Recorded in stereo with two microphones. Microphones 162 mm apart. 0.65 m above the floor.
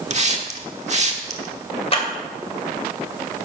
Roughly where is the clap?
Left.